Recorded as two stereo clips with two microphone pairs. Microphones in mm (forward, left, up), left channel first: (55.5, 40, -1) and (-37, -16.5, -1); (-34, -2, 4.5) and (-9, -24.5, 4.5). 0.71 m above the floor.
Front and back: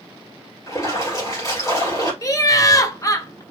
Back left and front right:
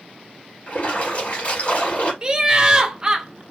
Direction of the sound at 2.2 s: Straight ahead.